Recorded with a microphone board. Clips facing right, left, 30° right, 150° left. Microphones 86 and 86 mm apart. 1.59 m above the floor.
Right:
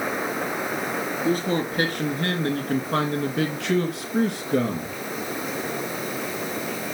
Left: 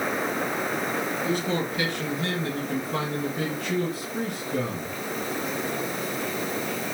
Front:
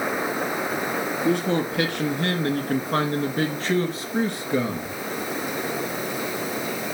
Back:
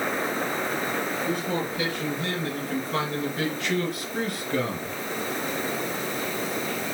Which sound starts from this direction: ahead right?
A man speaking, at 1.2 s.